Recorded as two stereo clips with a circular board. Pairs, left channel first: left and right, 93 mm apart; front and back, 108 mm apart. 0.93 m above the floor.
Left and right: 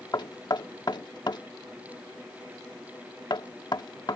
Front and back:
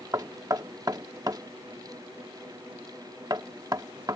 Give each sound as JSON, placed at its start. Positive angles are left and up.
{"t": 0.1, "sound": "knocking", "azimuth_deg": 125}